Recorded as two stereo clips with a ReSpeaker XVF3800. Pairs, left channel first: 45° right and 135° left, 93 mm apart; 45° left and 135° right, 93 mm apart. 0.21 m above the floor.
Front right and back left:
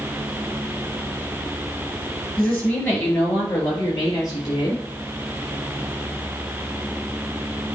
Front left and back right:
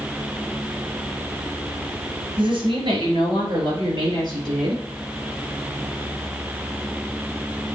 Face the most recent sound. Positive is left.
turn(degrees=-95)